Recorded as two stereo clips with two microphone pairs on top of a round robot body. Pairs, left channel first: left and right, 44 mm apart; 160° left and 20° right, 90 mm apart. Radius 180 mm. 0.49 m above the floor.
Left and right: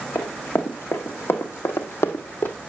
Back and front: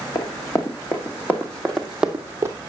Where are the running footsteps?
110° left, 1.8 m; by 2.6 s 40° left, 0.9 m.